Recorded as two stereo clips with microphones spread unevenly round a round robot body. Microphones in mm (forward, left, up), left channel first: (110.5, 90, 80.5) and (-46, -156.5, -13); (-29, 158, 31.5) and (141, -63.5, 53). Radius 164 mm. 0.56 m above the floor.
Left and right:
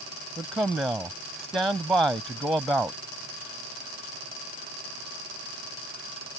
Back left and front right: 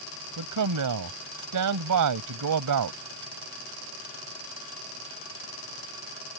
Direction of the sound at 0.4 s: 35° right.